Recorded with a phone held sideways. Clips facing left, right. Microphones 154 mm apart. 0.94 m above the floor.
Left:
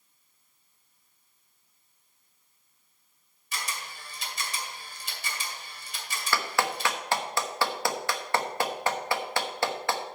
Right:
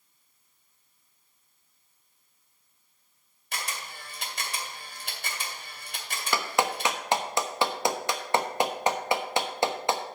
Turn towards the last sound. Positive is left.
turn(degrees=-20)  # may be behind; listen again after turning